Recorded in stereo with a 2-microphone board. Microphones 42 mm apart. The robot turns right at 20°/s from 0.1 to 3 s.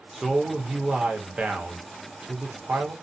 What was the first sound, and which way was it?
A man speaking, 175° right.